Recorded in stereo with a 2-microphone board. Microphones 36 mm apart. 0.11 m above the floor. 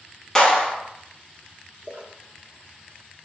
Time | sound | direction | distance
0.3 | a clap | 15° left (ahead or behind) | 1.3 m
1.8 | a splash | 40° right (ahead or behind) | 0.9 m